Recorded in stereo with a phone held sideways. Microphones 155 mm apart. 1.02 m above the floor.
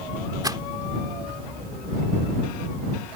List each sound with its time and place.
0.4 s a rattle: 25° right (ahead or behind)